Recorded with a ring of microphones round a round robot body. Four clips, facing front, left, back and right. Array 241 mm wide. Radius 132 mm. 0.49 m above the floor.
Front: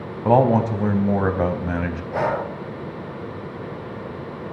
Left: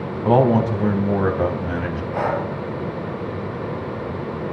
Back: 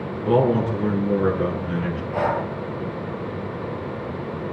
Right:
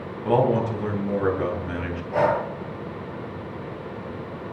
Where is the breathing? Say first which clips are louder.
Right 2 dB, even; 30° right, 5.5 m.